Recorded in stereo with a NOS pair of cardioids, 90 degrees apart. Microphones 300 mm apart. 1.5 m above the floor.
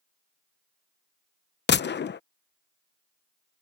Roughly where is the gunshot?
Ahead left.